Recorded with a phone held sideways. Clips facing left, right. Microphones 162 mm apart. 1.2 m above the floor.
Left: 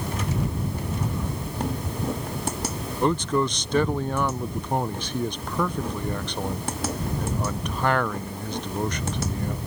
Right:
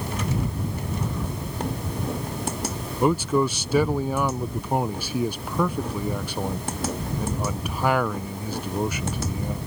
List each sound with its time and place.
3.0 s a man speaking: 10° right (ahead or behind)